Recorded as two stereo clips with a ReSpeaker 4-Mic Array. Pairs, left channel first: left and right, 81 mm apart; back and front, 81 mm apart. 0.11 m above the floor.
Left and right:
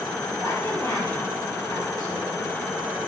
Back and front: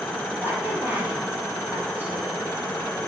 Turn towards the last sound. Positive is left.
turn(degrees=60)